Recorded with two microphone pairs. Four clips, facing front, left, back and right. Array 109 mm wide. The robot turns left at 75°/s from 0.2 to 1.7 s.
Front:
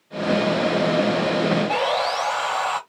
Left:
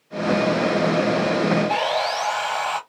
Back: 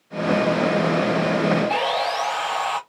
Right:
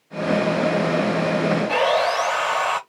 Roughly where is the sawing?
Right.